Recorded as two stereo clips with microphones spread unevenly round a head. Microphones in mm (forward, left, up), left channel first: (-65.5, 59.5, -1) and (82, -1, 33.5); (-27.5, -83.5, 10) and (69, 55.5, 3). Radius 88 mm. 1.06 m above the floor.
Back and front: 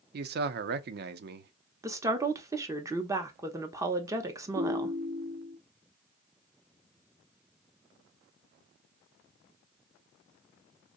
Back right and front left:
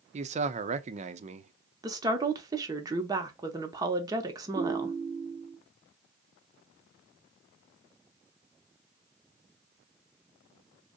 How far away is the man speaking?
About 0.5 m.